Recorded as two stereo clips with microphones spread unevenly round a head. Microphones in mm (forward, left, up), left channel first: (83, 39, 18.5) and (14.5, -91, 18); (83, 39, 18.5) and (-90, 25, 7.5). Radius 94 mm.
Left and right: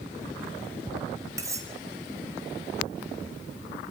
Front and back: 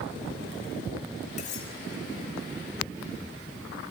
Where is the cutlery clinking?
50° right, 3.5 m.